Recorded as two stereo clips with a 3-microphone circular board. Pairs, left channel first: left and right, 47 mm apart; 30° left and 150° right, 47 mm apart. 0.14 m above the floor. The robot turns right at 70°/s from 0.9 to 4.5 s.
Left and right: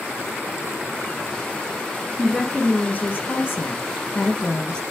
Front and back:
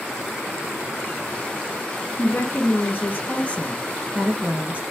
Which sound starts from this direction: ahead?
A woman speaking, at 2.2 s.